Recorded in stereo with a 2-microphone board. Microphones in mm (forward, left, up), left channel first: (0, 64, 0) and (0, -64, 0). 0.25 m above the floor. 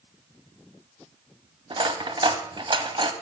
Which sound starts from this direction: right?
Cutlery clinking, at 1.7 s.